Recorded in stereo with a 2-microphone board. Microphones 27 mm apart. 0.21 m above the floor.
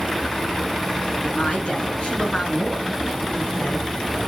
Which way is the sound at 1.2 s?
35° left (ahead or behind).